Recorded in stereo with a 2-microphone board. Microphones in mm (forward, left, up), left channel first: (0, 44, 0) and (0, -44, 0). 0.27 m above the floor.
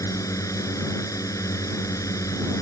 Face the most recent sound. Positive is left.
turn(degrees=40)  # may be behind; listen again after turning